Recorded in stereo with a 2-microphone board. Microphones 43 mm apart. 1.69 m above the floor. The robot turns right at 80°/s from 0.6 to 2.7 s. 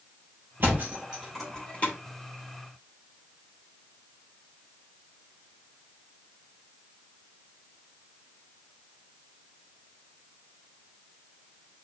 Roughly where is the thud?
Right.